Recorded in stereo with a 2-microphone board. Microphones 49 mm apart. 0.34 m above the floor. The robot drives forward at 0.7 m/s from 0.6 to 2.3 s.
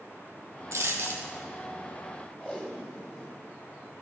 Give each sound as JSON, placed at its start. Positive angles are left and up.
{"t": 0.7, "sound": "a dropped coin", "side_deg": -70, "distance_m": 1.3}
{"t": 2.4, "sound": "tape being pulled", "side_deg": 30, "distance_m": 1.4}